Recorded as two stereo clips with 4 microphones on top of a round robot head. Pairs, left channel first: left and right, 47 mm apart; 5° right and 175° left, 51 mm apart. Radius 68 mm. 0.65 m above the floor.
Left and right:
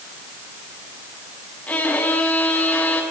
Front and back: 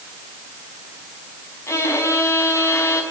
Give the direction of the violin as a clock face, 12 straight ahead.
11 o'clock.